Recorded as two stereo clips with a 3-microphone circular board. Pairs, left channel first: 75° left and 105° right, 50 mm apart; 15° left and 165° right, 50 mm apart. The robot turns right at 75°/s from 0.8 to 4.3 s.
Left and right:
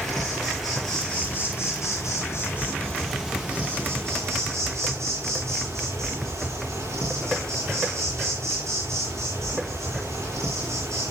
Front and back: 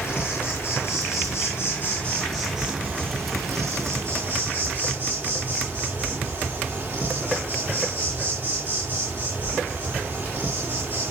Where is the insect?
25° right, 8.5 m; by 11.1 s 120° right, 8.5 m.